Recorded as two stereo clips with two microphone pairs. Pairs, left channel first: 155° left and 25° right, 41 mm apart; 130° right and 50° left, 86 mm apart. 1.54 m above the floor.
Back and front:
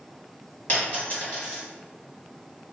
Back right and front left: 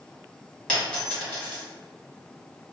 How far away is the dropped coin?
About 1.9 m.